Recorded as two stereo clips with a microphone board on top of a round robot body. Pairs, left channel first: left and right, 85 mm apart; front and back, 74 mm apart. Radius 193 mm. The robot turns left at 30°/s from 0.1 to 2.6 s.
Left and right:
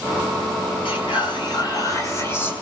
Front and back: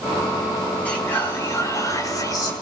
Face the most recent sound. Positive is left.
turn(degrees=20)